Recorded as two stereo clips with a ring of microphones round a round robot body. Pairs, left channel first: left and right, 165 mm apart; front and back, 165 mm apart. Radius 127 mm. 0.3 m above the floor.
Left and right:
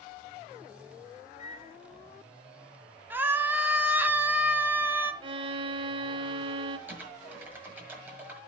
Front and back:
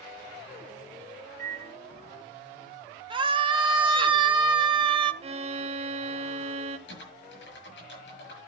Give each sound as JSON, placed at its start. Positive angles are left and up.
{"t": 1.4, "sound": "a microwave", "azimuth_deg": 145, "distance_m": 1.9}
{"t": 3.1, "sound": "a scream", "azimuth_deg": -160, "distance_m": 1.2}
{"t": 5.2, "sound": "a violin", "azimuth_deg": -140, "distance_m": 0.6}
{"t": 6.9, "sound": "typing on a keyboard", "azimuth_deg": -10, "distance_m": 7.5}